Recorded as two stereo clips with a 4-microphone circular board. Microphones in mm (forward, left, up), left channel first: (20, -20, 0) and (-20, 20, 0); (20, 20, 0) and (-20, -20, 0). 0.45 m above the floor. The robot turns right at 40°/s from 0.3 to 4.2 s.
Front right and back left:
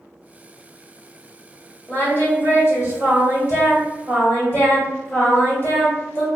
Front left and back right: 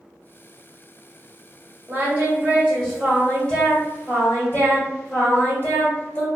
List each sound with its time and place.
1.9 s singing: 95° right, 1.5 m; by 6.3 s 5° right, 1.5 m